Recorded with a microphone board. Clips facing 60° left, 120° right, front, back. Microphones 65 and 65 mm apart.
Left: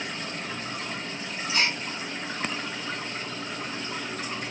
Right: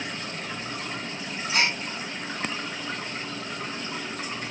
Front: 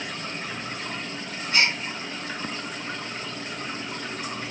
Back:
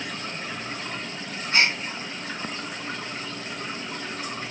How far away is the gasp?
About 1.0 m.